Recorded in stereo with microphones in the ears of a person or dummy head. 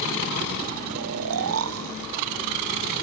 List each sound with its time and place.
0.9 s snoring: 70° right (ahead or behind)